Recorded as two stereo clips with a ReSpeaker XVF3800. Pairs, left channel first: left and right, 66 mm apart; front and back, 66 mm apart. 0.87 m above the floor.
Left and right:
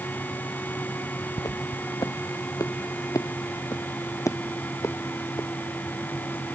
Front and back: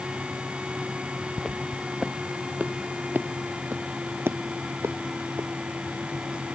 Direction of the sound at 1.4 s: 90° left.